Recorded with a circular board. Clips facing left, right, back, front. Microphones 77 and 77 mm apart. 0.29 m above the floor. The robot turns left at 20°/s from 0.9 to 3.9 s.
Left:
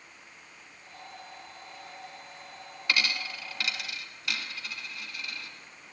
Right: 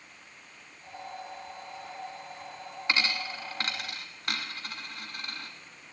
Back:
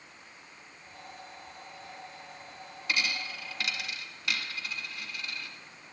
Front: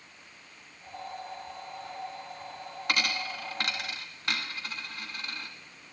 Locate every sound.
2.9 s a dropped coin: 25° right, 1.4 m; by 5.5 s 45° right, 1.4 m